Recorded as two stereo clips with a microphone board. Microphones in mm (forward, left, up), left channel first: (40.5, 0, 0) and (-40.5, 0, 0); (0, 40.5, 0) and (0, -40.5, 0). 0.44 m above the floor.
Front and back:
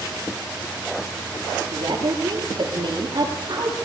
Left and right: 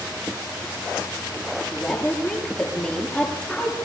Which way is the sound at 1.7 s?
165° left.